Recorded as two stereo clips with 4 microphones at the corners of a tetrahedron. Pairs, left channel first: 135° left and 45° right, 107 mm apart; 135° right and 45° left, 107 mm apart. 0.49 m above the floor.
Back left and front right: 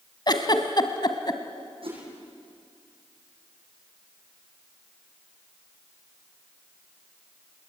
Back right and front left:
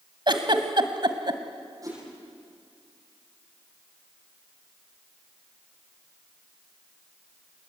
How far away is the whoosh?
About 9 m.